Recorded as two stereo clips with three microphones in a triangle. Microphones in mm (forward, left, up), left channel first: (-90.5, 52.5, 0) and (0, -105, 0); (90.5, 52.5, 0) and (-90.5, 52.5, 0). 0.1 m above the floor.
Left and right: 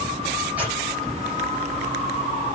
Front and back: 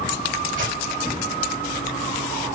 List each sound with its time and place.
0.6 s tearing paper: 140° right, 6 m